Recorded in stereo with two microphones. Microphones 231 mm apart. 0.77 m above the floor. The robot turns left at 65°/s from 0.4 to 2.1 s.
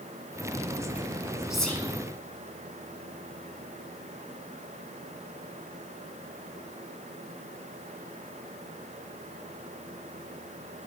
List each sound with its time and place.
1.5 s whispering: 5° right (ahead or behind), 1.7 m; by 1.9 s 15° left (ahead or behind), 1.7 m